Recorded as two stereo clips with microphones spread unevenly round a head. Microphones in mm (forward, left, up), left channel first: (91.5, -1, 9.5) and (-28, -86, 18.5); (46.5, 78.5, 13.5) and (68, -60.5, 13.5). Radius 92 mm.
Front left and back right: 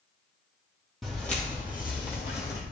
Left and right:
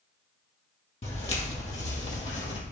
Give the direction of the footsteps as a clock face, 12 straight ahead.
8 o'clock.